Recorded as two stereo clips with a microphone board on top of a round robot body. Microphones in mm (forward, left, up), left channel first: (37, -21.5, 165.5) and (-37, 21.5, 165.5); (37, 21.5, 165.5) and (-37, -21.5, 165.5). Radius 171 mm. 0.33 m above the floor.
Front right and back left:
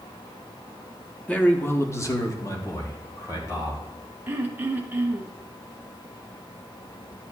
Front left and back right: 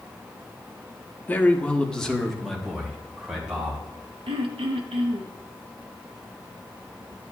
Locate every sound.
1.3 s a man speaking: 15° left, 1.3 m; by 3.8 s 70° right, 3 m
4.3 s throat clearing: 140° right, 1.0 m